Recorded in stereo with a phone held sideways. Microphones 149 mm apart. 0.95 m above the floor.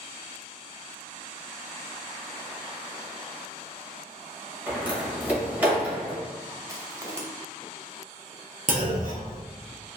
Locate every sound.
4.7 s a door slam: 10° right (ahead or behind), 0.8 m
6.7 s crushing: 20° right (ahead or behind), 0.5 m
8.7 s a clunk: 65° right (ahead or behind), 0.6 m